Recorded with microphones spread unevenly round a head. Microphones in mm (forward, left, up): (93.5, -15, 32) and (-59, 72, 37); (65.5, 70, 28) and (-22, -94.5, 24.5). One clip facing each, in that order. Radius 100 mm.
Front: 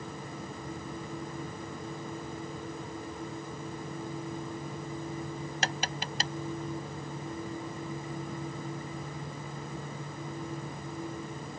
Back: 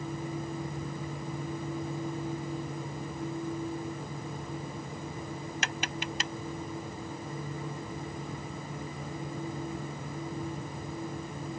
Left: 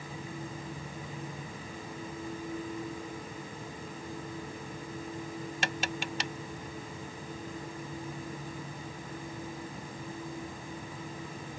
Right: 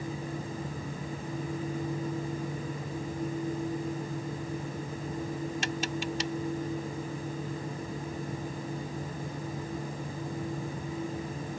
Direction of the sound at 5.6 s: 25° left.